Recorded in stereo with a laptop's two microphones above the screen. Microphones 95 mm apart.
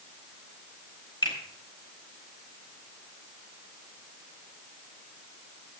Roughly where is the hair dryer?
I don't hear a hair dryer.